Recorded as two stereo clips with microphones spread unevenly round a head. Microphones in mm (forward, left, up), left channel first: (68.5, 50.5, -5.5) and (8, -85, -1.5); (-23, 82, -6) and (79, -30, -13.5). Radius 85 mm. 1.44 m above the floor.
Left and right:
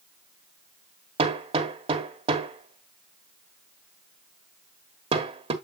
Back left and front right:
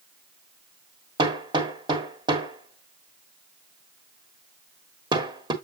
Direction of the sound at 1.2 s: 100° right.